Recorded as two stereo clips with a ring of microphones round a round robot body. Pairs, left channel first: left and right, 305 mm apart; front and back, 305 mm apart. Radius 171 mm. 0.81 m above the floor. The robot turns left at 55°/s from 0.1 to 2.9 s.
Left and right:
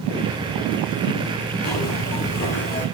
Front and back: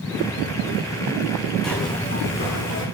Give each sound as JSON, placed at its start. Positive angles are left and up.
{"t": 1.6, "sound": "a zipper", "azimuth_deg": 90, "distance_m": 7.0}